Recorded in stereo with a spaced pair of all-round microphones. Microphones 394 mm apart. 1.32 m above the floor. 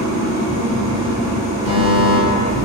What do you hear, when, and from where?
0.0 s an engine running: 10° right (ahead or behind), 1.3 m
1.6 s a fire alarm: 10° right (ahead or behind), 1.0 m